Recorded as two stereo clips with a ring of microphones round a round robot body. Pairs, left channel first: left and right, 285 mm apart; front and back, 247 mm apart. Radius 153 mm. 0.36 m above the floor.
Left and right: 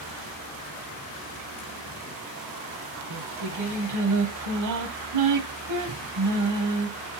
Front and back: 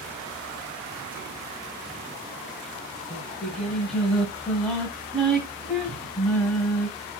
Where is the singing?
90° right, 2 m.